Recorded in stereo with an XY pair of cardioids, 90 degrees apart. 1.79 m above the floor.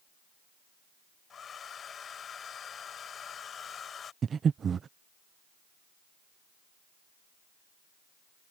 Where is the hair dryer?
55° left.